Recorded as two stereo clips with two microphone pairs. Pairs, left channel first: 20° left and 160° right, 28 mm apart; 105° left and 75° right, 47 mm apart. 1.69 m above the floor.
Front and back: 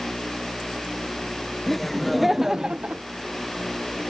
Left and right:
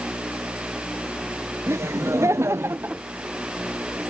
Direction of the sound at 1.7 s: 60° right.